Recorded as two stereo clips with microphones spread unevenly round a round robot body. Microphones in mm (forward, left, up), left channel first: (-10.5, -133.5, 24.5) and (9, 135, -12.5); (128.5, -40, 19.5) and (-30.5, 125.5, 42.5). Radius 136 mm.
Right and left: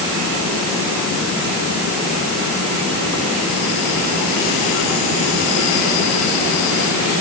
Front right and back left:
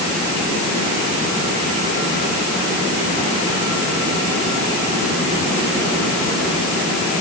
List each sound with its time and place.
Only background noise.